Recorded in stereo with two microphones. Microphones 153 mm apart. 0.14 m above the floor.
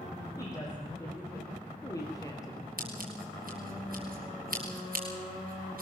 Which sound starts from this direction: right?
Scissors, at 2.8 s.